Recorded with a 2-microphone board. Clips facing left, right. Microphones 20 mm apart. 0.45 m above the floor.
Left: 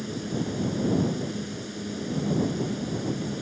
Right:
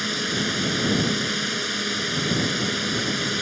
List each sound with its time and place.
0.0 s a drone: 60° right (ahead or behind)